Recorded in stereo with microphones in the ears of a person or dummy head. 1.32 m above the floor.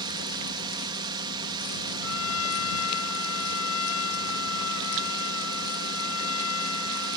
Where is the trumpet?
85° left.